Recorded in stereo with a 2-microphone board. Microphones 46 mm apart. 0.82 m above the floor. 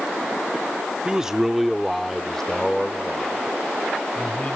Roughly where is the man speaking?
Centre.